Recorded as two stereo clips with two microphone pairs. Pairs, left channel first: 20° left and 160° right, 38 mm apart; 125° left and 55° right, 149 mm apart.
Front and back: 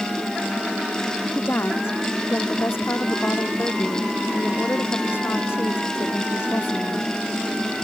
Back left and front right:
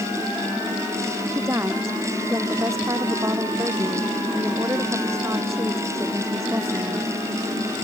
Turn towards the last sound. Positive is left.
turn(degrees=20)